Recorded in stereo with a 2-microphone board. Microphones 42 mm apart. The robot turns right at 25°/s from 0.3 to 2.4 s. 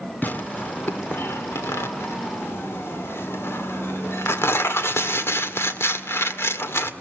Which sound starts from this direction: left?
Tearing paper, at 0.2 s.